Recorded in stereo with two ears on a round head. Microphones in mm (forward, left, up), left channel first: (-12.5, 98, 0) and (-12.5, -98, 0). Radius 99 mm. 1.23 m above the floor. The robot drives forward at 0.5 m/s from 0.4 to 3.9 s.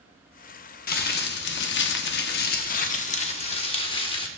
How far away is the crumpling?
About 0.8 m.